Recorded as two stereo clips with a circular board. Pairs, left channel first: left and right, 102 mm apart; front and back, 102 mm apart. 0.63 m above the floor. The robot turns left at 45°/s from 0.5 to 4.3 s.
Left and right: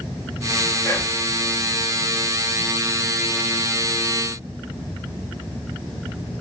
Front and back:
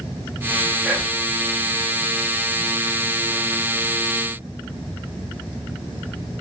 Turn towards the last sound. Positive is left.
turn(degrees=-90)